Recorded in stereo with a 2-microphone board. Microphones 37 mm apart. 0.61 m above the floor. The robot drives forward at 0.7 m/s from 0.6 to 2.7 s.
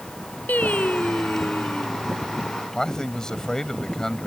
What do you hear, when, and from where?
0.5 s singing: 45° left (ahead or behind); by 2.0 s 55° left (ahead or behind)
2.7 s a man speaking: 15° left (ahead or behind)